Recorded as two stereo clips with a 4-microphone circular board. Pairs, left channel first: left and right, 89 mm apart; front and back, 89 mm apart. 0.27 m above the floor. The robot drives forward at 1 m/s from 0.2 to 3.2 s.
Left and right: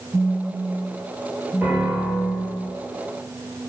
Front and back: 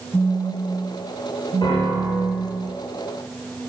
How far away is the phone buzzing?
About 0.6 m.